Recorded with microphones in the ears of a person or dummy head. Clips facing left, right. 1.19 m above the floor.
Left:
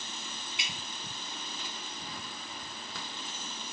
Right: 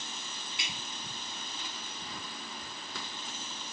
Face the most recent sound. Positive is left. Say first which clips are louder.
# right 1 dB
turn(degrees=20)  # may be behind; listen again after turning